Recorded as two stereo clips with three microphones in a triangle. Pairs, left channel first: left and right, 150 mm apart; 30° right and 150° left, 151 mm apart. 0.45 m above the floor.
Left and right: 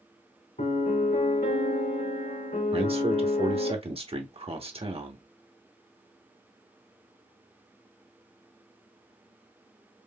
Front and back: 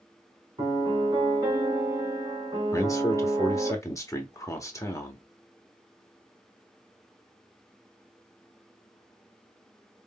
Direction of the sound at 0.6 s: 90° left.